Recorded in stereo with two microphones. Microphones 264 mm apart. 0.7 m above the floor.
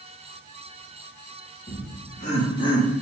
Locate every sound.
1.7 s laughter: 35° left (ahead or behind), 1.3 m; by 2.9 s 15° left (ahead or behind), 1.7 m